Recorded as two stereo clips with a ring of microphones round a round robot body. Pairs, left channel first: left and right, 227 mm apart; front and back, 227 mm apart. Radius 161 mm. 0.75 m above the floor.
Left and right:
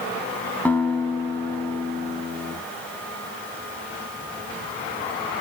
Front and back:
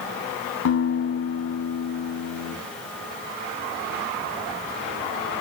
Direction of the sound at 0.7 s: 5° left.